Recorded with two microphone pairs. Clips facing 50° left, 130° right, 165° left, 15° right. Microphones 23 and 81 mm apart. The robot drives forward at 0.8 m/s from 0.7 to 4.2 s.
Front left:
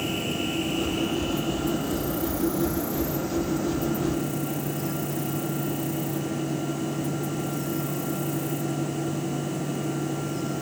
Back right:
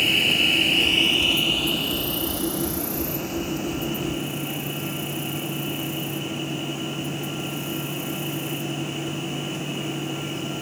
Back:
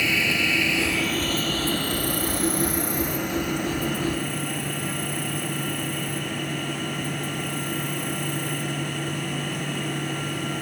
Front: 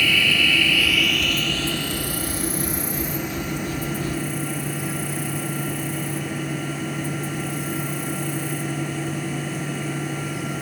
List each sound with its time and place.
0.0 s an insect: 125° right; by 10.6 s 170° right